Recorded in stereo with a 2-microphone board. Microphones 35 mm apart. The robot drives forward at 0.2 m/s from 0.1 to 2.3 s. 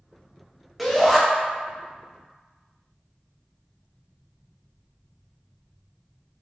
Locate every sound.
0.8 s a shout: 5° left (ahead or behind), 0.8 m